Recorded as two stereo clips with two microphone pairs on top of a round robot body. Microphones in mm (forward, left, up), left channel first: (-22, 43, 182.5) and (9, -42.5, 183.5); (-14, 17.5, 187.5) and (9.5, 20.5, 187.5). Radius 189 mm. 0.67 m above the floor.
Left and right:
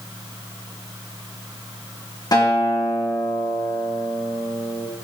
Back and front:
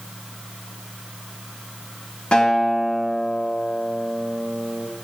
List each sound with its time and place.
2.3 s a guitar: 150° left, 2.5 m